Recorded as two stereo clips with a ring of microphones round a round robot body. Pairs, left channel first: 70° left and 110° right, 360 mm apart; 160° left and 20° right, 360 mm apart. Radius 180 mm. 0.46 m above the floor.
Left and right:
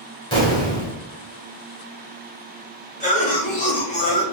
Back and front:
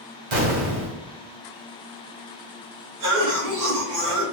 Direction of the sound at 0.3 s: 10° right.